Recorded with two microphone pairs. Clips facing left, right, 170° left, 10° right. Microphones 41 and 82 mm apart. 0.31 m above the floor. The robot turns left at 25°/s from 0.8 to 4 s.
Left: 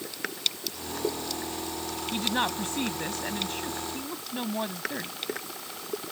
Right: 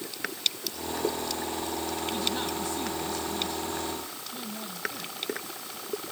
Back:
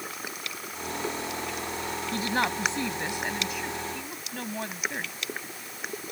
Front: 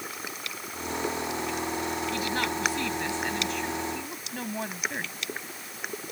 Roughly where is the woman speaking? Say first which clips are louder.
Left 2 dB, back 1 dB; behind left.